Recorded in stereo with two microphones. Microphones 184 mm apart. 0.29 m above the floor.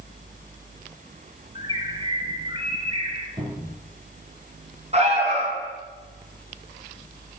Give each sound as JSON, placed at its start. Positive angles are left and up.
{"t": 1.6, "sound": "a bird", "side_deg": -30, "distance_m": 1.3}
{"t": 3.4, "sound": "a cupboard door", "side_deg": -20, "distance_m": 4.0}
{"t": 4.9, "sound": "an alarm", "side_deg": -35, "distance_m": 3.0}